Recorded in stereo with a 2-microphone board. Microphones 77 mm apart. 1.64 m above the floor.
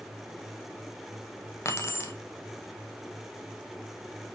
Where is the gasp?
No gasp in this recording.